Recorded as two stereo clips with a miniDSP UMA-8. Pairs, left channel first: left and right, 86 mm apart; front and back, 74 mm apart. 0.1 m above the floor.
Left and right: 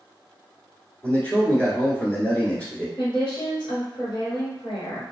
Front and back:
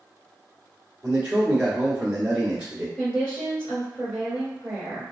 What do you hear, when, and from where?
1.0 s a man speaking: 130° left, 1.3 m
3.0 s a woman speaking: 80° left, 2.0 m